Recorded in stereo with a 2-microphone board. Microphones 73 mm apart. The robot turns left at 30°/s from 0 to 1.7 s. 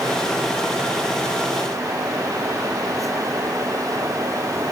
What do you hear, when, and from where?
Only background noise.